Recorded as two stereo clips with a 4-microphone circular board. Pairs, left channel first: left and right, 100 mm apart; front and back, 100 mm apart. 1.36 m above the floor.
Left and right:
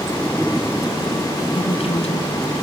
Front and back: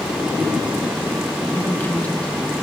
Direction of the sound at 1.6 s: 65° left.